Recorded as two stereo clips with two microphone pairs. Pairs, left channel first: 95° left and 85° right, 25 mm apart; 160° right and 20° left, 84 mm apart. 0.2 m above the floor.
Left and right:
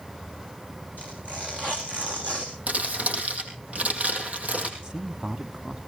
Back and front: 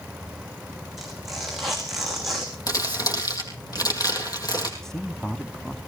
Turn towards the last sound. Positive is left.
turn(degrees=-85)